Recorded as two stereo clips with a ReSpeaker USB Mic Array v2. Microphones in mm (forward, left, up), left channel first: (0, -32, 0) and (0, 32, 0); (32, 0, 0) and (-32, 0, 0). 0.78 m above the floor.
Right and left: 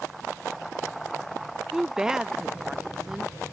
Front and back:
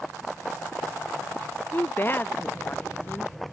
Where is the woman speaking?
15° left.